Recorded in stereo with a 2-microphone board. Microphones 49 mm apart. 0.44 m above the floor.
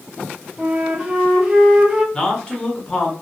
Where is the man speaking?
20° left (ahead or behind), 1.1 m.